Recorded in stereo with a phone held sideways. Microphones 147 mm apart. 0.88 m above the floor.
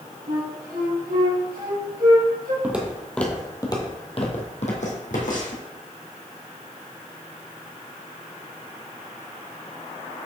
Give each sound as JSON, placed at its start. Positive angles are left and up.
{"t": 0.3, "sound": "a flute", "side_deg": -80, "distance_m": 3.5}
{"t": 2.6, "sound": "footsteps", "side_deg": -10, "distance_m": 1.4}